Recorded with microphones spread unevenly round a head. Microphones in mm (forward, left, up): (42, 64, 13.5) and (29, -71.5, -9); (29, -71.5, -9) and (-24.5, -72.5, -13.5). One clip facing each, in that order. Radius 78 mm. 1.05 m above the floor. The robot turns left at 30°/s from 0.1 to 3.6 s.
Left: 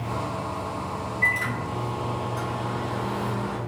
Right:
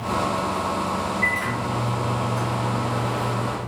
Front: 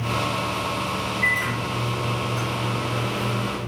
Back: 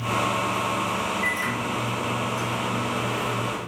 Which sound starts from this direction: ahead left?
A microwave, at 1.2 s.